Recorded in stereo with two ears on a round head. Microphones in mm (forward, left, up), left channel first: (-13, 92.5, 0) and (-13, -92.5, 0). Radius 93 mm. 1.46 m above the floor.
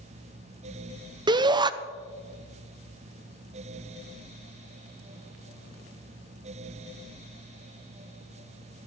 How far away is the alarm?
No alarm in this recording.